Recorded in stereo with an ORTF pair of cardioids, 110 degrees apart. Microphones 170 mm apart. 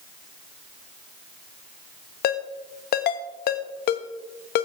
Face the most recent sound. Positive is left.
turn(degrees=65)